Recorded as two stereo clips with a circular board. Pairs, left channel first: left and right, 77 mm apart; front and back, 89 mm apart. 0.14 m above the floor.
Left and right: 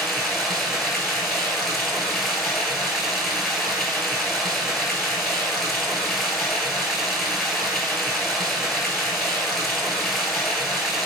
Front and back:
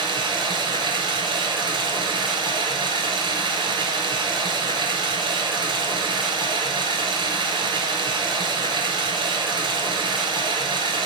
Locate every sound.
0.0 s running water: straight behind, 0.8 m